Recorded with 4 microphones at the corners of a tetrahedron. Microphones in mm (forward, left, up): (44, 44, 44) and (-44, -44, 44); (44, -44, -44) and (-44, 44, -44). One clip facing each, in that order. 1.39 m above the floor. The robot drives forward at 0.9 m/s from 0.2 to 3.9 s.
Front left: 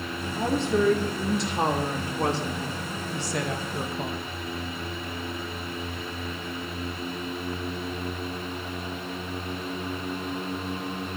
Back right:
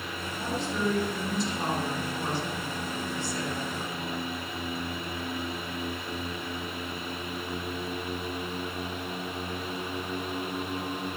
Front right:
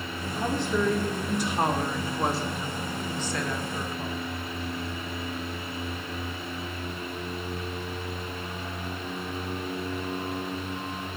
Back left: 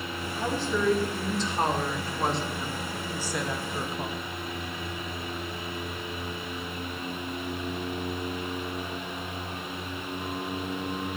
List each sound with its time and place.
0.4 s a woman speaking: 25° left, 4.5 m; by 4.2 s 70° left, 2 m